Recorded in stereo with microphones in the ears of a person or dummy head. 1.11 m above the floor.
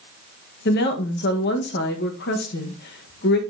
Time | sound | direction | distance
0.7 | a woman speaking | 50° left (ahead or behind) | 1.3 m